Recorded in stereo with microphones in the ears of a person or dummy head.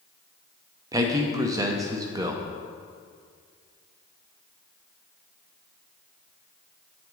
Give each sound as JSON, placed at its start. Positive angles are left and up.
{"t": 0.9, "sound": "a man speaking", "side_deg": -20, "distance_m": 0.6}